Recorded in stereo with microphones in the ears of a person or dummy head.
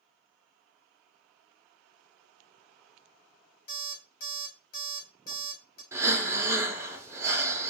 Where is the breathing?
20° right (ahead or behind), 0.6 m.